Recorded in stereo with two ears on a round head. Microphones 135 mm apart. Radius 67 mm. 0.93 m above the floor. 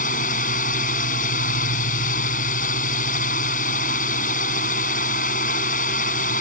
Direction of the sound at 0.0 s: 55° left (ahead or behind).